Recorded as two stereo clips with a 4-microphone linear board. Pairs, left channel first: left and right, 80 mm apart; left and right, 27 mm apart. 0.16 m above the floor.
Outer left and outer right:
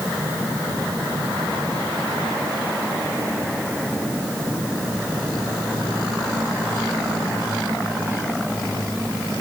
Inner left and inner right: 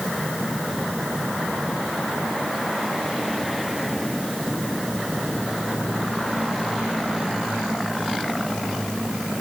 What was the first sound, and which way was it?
Only background noise.